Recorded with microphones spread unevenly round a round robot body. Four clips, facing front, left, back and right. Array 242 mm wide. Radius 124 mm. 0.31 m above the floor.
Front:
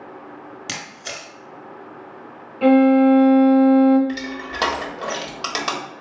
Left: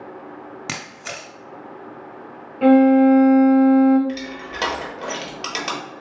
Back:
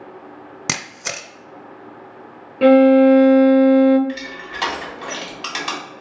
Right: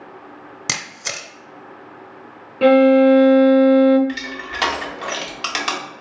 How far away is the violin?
About 0.6 m.